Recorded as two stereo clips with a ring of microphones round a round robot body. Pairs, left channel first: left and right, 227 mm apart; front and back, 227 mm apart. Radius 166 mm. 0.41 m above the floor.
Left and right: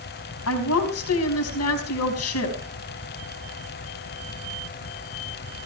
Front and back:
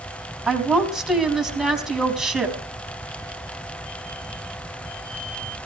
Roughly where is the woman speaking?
Left.